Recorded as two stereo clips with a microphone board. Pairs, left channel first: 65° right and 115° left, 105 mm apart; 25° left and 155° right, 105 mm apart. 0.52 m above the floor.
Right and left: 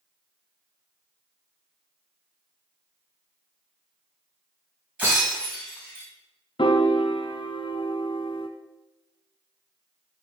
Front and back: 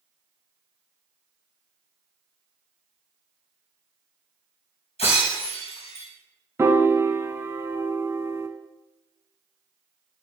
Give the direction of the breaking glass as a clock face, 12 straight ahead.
11 o'clock.